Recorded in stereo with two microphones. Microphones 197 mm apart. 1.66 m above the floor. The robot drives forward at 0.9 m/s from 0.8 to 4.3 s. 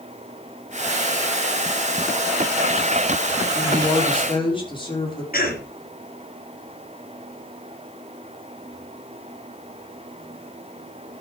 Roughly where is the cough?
Left.